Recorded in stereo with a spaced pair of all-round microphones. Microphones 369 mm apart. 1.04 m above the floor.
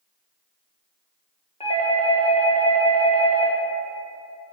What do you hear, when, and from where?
1.6 s a doorbell: 15° left (ahead or behind), 1.6 m